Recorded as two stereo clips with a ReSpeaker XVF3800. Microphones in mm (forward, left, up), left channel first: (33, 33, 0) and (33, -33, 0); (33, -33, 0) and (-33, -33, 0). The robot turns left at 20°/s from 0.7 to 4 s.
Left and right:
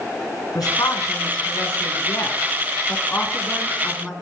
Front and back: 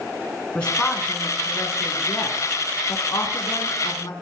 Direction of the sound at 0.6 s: 75° left.